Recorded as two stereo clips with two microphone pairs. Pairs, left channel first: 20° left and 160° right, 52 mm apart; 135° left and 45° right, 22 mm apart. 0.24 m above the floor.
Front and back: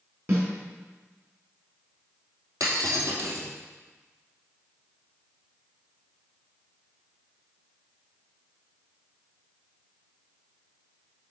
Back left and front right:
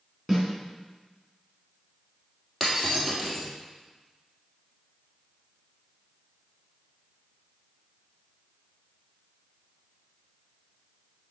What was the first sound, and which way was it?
A snare drum, 135° right.